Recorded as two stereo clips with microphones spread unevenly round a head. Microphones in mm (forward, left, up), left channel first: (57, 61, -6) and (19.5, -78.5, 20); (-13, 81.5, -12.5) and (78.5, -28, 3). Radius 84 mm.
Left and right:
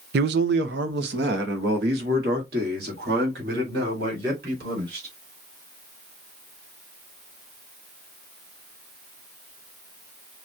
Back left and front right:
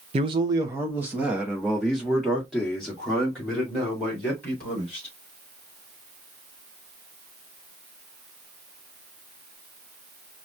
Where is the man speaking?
105° right, 0.6 m; by 5.1 s 145° right, 4 m.